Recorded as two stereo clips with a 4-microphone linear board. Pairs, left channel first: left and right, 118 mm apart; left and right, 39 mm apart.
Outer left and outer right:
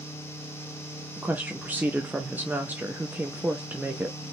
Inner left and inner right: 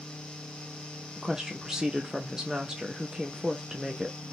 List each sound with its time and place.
1.2 s a woman speaking: 15° right (ahead or behind), 0.5 m